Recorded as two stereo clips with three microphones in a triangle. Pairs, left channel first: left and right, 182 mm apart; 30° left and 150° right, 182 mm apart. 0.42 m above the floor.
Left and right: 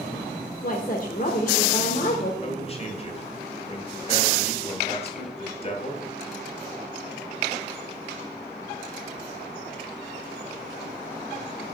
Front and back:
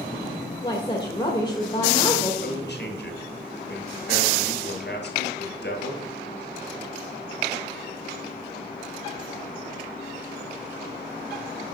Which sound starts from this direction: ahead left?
A man speaking, at 2.4 s.